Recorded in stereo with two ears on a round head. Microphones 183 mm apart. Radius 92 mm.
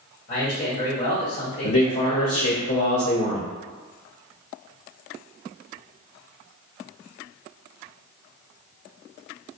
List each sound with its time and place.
0.3 s a man speaking: 50° left (ahead or behind), 1.7 m
1.6 s a man speaking: 80° left, 1.4 m